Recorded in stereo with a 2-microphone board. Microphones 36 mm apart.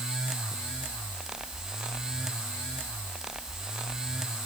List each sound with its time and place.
Only background noise.